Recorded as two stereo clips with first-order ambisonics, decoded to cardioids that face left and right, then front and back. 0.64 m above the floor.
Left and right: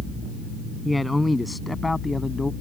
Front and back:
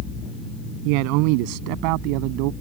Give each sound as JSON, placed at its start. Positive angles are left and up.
{"t": 0.8, "sound": "a man speaking", "azimuth_deg": 175}